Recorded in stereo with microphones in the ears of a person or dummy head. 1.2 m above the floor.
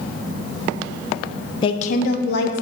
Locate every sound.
1.6 s a woman speaking: 25° left (ahead or behind), 0.5 m; by 2.6 s 60° left (ahead or behind), 1.2 m